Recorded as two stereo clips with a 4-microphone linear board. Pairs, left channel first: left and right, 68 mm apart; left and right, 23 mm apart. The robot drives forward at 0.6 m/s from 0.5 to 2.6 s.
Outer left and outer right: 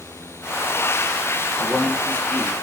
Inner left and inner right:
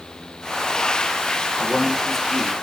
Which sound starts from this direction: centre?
A man speaking, at 1.6 s.